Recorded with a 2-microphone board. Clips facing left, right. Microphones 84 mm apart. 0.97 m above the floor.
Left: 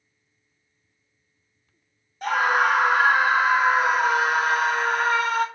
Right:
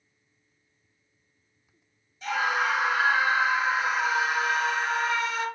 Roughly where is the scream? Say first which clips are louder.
Left 6 dB; left.